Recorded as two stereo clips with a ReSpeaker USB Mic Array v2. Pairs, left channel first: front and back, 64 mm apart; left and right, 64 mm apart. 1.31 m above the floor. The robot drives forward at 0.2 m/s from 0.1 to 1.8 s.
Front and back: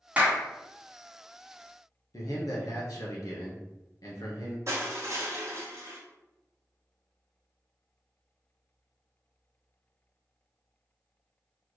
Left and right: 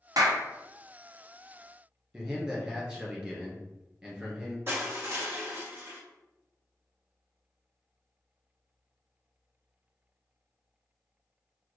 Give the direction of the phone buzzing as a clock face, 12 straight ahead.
I don't hear a phone buzzing.